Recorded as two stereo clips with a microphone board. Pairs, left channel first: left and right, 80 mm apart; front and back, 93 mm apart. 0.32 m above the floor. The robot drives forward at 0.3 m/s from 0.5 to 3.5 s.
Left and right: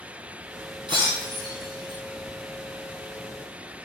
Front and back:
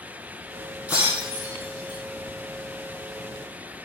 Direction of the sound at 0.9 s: 110° right.